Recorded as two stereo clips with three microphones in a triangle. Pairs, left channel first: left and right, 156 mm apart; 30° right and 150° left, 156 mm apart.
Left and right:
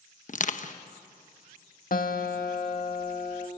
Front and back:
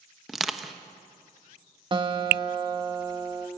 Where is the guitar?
95° left, 1.9 m.